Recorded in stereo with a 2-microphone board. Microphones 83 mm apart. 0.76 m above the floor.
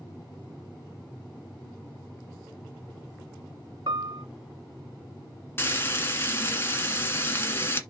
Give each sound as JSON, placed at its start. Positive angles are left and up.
{"t": 3.9, "sound": "a piano", "side_deg": -65, "distance_m": 1.0}
{"t": 5.6, "sound": "frying", "side_deg": 30, "distance_m": 1.6}